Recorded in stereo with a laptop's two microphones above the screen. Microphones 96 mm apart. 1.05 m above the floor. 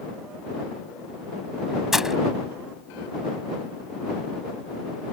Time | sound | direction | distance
1.9 | breaking glass | 5° right (ahead or behind) | ?